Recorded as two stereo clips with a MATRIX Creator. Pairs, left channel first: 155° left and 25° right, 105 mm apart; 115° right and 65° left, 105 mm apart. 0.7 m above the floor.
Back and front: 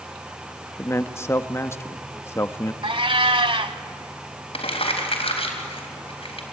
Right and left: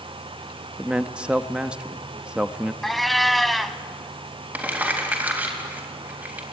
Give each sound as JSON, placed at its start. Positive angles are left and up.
{"t": 0.8, "sound": "a man speaking", "azimuth_deg": 135, "distance_m": 0.7}
{"t": 2.8, "sound": "a cat meowing", "azimuth_deg": -25, "distance_m": 0.9}
{"t": 4.5, "sound": "crumpling", "azimuth_deg": 140, "distance_m": 3.5}